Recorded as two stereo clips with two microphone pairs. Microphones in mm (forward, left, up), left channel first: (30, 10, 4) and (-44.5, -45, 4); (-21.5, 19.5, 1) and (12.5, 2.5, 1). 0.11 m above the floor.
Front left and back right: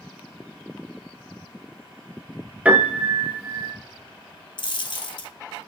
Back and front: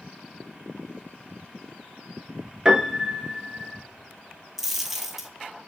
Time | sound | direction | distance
2.6 | a piano | 85° right | 0.9 m
4.6 | a dropped coin | 60° left | 0.6 m